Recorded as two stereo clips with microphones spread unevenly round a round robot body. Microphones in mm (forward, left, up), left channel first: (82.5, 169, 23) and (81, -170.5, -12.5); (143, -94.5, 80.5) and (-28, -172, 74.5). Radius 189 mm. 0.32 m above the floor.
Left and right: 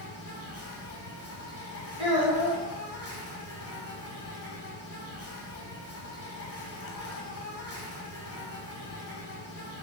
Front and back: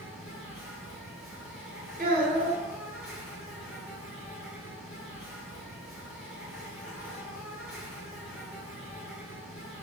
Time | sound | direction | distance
0.0 | an insect | 45° left | 1.4 m
2.0 | a child speaking | 160° right | 1.4 m